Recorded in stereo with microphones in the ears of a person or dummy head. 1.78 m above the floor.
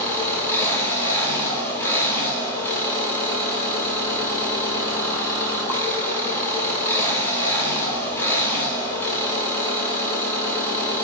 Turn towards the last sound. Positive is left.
turn(degrees=15)  # may be behind; listen again after turning